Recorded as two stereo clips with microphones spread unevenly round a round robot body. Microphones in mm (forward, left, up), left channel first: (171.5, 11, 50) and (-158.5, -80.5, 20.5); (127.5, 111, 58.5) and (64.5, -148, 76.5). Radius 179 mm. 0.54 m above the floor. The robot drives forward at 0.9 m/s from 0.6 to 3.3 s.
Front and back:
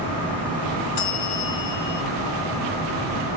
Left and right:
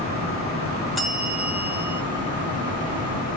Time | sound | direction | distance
1.0 | a bell | 15° right | 2 m